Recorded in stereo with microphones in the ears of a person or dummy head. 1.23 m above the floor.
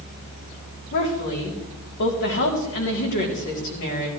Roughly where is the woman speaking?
Left.